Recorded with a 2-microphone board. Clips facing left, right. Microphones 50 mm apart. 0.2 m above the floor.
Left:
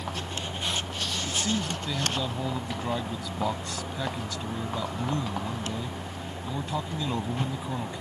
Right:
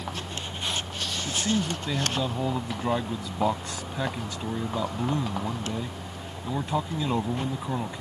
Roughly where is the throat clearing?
I don't hear throat clearing.